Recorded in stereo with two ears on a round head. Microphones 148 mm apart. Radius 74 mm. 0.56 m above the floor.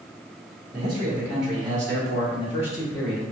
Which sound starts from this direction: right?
A man speaking, at 0.7 s.